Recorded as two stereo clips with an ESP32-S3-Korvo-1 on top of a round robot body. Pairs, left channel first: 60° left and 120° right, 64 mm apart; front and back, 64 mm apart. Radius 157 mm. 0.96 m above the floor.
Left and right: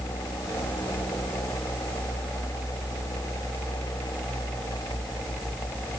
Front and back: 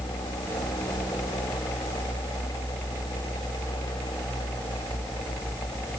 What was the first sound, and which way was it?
Only background noise.